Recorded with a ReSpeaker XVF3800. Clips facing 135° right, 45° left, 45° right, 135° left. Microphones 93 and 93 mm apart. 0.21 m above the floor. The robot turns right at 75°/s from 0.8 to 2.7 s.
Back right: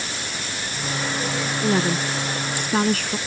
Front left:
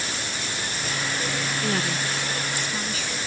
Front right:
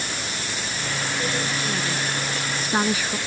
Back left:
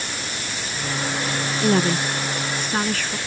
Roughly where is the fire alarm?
I don't hear a fire alarm.